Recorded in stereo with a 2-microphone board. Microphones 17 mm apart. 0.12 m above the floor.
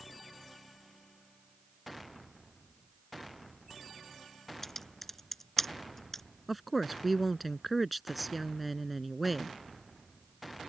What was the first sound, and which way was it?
Typing on a keyboard, 15° left (ahead or behind).